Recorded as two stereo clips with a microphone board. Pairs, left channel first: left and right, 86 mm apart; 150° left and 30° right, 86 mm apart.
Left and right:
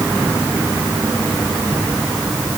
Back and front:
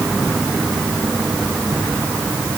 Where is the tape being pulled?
I don't hear tape being pulled.